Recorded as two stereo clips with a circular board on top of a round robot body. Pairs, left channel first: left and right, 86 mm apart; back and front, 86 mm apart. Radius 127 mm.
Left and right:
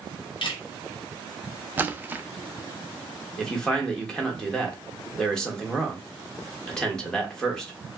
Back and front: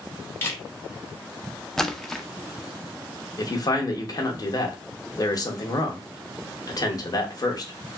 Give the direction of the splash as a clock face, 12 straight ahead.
3 o'clock.